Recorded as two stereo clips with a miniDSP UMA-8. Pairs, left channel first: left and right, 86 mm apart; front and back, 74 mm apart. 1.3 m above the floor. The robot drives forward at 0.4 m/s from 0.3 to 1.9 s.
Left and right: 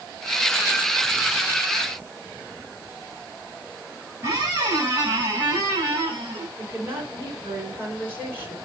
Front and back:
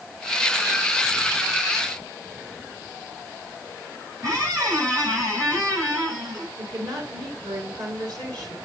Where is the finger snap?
No finger snap in this recording.